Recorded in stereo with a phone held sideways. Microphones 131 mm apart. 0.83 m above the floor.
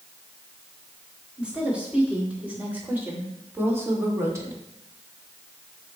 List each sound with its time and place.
1.4 s a woman speaking: 10° right (ahead or behind), 3.5 m; by 4.6 s 25° right (ahead or behind), 1.5 m